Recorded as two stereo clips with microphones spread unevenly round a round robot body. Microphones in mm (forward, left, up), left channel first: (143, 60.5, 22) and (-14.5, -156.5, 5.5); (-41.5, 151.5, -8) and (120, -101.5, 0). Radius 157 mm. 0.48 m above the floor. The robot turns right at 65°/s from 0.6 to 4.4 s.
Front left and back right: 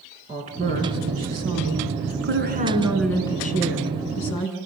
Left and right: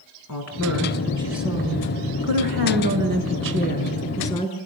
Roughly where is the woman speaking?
Behind.